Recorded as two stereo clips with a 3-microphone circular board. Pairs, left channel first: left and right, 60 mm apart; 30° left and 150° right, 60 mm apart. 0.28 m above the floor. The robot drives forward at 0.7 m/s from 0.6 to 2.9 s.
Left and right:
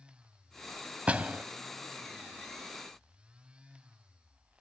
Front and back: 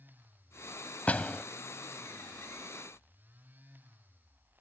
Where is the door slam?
30° right; by 1.4 s 40° right.